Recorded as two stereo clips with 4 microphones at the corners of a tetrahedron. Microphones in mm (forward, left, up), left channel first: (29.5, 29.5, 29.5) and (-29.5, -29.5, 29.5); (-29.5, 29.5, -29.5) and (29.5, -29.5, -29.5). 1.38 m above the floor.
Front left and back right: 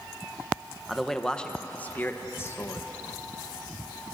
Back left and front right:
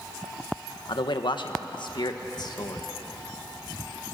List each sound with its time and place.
0.9 s a man speaking: 135° left, 1.7 m; by 2.9 s 95° left, 2 m